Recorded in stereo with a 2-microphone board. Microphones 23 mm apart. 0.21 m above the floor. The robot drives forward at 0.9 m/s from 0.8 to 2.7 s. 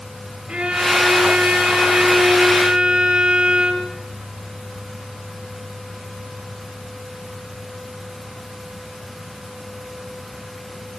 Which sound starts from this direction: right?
A violin, at 0.5 s.